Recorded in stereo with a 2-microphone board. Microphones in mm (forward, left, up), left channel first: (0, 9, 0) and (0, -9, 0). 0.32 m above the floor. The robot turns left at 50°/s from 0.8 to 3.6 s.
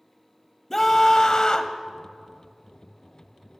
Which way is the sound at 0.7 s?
150° left.